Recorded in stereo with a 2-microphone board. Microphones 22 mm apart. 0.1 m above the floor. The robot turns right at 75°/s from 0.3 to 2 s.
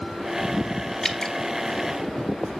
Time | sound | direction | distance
1.0 | dripping | 20° left (ahead or behind) | 1.1 m